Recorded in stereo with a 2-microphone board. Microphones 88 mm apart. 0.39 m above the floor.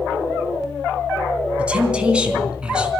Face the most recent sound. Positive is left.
turn(degrees=-10)  # may be behind; listen again after turning